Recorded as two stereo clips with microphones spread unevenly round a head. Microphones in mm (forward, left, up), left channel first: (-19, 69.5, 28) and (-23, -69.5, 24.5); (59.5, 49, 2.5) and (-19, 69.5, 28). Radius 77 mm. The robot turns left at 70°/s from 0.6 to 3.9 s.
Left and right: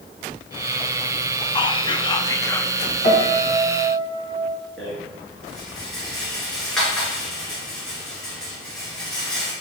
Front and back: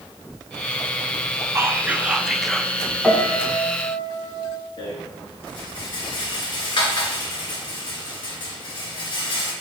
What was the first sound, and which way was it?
Whispering, 105° left.